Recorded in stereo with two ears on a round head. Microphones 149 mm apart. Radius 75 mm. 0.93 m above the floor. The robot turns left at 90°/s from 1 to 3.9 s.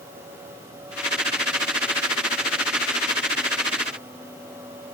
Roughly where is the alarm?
I don't hear an alarm.